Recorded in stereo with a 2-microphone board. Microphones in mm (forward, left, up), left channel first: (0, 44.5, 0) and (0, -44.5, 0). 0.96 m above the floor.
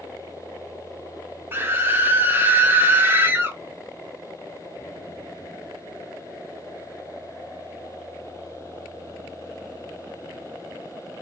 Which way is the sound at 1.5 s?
25° right (ahead or behind).